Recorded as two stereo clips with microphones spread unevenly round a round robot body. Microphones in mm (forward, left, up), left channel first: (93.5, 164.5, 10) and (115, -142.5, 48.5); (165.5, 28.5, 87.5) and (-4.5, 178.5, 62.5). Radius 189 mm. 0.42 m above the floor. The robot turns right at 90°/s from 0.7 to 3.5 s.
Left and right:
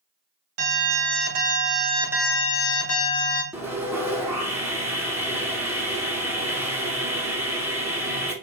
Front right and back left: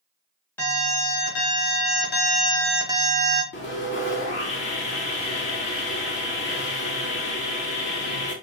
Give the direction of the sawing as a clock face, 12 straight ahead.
12 o'clock.